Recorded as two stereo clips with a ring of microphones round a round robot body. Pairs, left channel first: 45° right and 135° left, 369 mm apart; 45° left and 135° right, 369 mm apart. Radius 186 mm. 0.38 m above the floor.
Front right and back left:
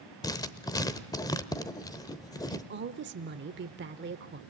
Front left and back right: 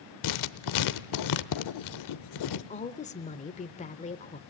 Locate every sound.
0.2 s writing: 35° left, 0.8 m
2.5 s a woman speaking: 100° left, 0.9 m